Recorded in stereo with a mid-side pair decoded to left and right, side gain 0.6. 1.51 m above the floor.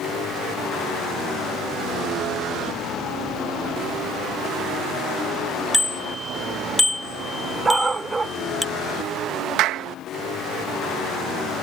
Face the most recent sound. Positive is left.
turn(degrees=-65)